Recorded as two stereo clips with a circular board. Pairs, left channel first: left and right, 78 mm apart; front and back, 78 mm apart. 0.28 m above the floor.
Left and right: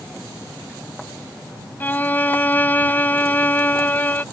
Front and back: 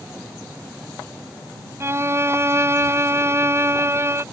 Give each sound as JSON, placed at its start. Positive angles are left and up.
{"t": 1.8, "sound": "a violin", "azimuth_deg": 145}